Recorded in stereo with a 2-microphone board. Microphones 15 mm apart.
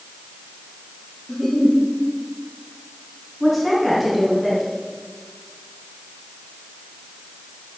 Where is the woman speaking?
15° right (ahead or behind), 4 m.